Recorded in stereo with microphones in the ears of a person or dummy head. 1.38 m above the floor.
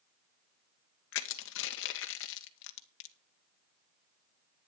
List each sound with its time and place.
1.1 s crushing: 70° left (ahead or behind), 1.4 m